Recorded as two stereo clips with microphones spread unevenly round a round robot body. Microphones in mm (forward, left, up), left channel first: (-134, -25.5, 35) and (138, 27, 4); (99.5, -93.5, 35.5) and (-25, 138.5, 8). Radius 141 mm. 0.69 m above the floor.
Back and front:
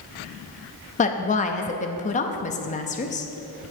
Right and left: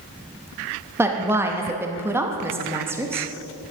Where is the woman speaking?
165° left, 0.7 m.